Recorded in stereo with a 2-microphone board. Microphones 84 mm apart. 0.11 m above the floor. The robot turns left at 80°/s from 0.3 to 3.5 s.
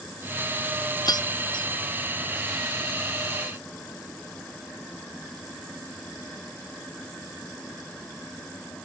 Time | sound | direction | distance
1.1 | keys jangling | 50° left (ahead or behind) | ?